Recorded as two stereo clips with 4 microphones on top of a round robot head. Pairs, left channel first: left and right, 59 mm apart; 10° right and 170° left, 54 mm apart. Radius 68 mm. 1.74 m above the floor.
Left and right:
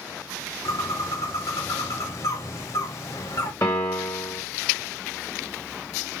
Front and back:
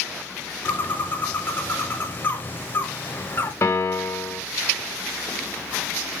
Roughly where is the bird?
Ahead left.